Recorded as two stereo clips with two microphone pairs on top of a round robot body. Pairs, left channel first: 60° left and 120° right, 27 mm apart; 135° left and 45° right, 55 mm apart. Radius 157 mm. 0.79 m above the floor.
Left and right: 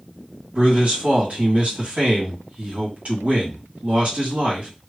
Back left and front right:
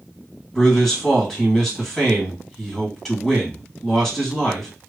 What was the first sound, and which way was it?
A man speaking, 140° right.